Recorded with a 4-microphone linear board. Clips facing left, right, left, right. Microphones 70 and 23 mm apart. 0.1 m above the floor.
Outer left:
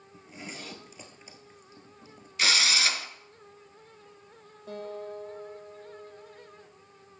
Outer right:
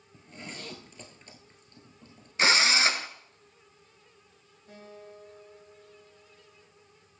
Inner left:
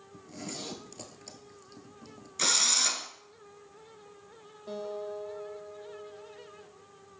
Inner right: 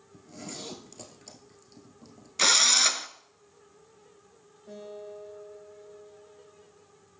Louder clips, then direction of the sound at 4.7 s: Outer left 10 dB, inner left 5 dB; 70° left (ahead or behind).